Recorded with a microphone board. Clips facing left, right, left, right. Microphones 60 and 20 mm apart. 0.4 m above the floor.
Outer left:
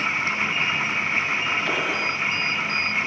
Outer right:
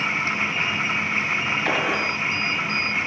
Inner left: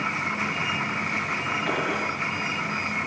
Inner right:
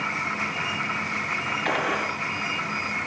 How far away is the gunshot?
About 2 m.